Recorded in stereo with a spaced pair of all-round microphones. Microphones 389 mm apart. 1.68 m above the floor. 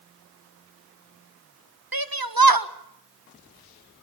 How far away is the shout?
About 1.5 m.